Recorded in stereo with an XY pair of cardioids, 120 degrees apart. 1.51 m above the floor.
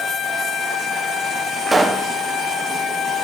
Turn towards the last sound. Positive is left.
turn(degrees=-20)